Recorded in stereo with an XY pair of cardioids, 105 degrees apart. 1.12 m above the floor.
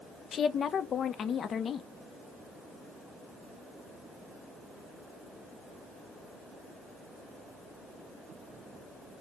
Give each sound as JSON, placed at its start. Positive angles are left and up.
{"t": 0.3, "sound": "a woman speaking", "azimuth_deg": 55, "distance_m": 0.6}